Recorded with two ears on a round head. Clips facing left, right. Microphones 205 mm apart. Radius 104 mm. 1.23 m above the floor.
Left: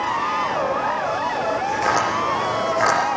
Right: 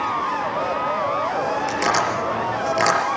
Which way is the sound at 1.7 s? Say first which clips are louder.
Even; 40° right (ahead or behind).